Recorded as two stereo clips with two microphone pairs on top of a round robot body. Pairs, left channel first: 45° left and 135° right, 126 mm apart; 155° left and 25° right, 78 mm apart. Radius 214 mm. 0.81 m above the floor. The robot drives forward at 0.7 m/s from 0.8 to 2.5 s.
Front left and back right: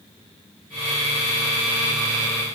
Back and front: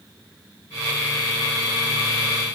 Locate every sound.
Only background noise.